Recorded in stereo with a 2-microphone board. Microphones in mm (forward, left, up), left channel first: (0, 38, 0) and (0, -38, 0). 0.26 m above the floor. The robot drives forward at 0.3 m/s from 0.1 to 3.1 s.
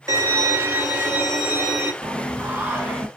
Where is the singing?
25° right (ahead or behind), 0.7 m; by 3.1 s 20° right (ahead or behind), 0.9 m.